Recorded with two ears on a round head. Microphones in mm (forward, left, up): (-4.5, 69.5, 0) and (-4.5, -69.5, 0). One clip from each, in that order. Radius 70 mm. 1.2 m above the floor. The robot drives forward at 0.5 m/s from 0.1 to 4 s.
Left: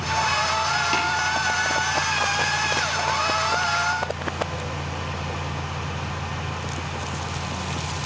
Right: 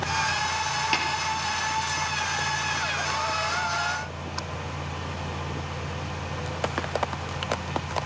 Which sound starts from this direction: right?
Tapping, at 0.9 s.